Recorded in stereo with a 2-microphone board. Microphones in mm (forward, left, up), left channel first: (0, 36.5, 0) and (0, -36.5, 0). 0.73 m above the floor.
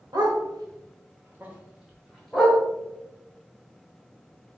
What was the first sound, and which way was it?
A dog barking, 85° right.